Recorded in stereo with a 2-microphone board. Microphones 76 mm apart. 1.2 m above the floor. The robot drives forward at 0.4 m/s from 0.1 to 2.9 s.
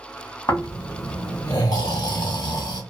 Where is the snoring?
40° left (ahead or behind), 1.2 m; by 2.8 s 65° left (ahead or behind), 0.9 m.